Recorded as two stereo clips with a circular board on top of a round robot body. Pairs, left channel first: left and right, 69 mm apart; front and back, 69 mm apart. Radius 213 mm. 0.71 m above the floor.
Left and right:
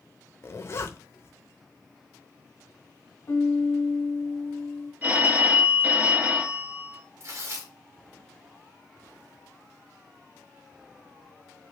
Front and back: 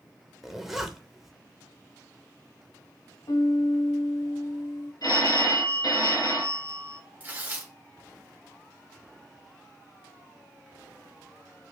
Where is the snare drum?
I don't hear a snare drum.